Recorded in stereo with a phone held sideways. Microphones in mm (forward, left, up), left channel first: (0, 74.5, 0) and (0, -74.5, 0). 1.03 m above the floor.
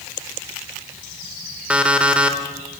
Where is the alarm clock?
10° right (ahead or behind), 1.9 m.